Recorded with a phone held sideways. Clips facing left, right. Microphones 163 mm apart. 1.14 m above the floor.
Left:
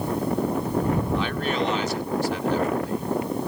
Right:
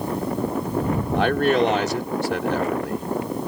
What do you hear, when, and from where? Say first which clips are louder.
1.1 s a man speaking: right 6 dB; 65° right (ahead or behind)